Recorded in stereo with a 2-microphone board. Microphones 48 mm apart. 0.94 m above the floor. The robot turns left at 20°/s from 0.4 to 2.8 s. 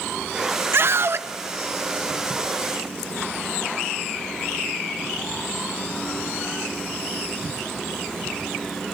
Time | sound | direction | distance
0.7 | a scream | 50° right (ahead or behind) | 0.9 m